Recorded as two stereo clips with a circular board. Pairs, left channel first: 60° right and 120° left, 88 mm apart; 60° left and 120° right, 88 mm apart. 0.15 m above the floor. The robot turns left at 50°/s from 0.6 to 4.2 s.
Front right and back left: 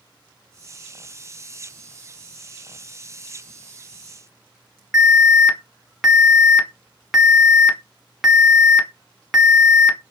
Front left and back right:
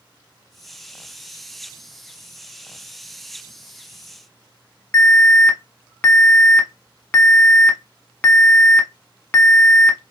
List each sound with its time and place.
4.9 s an alarm: 25° left, 0.8 m